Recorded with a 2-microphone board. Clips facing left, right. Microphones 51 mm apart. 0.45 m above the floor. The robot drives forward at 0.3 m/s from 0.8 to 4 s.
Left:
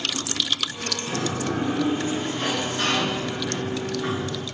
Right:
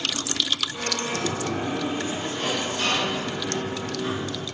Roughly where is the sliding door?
Left.